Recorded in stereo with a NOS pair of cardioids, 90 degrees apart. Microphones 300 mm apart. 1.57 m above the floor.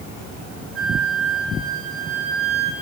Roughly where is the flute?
Ahead right.